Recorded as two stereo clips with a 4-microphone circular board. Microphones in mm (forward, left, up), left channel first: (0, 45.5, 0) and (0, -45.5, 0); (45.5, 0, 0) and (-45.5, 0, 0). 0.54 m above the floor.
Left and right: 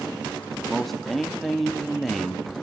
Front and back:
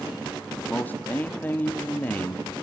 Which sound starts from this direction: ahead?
A man speaking, at 0.7 s.